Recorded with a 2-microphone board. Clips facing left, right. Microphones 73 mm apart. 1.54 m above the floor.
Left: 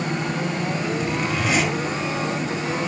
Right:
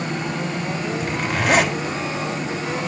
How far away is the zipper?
About 3 m.